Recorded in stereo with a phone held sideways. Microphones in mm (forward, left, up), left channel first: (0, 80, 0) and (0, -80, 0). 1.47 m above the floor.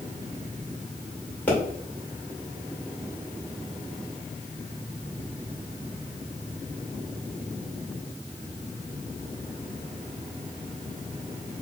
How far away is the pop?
About 2 m.